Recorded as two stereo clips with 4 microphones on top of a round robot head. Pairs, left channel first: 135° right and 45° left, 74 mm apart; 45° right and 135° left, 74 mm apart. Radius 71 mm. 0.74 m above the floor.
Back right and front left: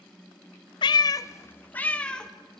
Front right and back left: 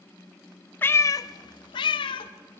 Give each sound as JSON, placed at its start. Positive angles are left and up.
{"t": 0.8, "sound": "a cat meowing", "azimuth_deg": -110, "distance_m": 0.5}